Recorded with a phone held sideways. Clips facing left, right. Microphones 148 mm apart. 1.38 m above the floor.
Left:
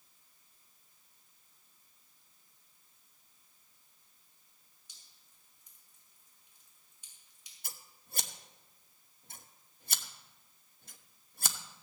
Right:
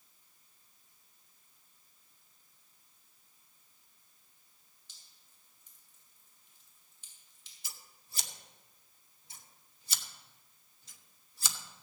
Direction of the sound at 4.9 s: 10° left (ahead or behind).